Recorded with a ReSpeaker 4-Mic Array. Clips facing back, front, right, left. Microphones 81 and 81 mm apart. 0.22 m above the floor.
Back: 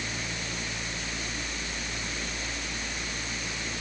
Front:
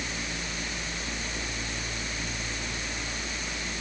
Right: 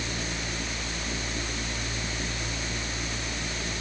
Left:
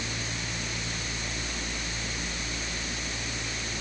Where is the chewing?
I don't hear chewing.